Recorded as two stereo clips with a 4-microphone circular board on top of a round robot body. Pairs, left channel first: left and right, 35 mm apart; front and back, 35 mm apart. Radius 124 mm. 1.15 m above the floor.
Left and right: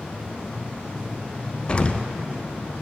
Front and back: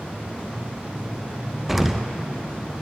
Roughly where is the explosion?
Left.